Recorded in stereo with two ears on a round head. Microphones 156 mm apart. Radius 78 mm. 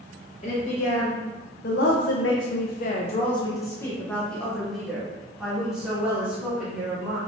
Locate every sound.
0.4 s a woman speaking: 35° left (ahead or behind), 1.2 m; by 7.2 s 10° right (ahead or behind), 2.5 m